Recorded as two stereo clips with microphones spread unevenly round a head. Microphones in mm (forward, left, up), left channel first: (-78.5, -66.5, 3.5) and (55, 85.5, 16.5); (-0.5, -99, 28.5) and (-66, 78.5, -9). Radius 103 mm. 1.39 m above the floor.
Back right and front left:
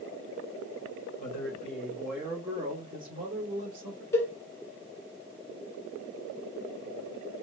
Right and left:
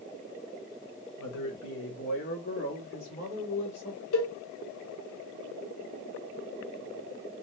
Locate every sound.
1.2 s a man speaking: 80° right, 0.8 m; by 4.0 s 10° left, 1.6 m
4.1 s a cowbell: 55° right, 0.9 m